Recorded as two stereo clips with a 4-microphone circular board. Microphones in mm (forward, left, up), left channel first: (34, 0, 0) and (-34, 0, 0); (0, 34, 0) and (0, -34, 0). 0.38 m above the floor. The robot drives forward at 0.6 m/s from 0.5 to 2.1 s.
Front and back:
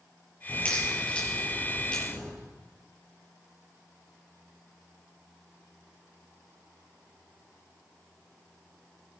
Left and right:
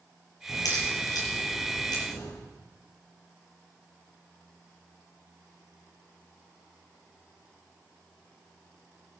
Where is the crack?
70° left, 9 m; by 2.3 s 75° left, 8.5 m.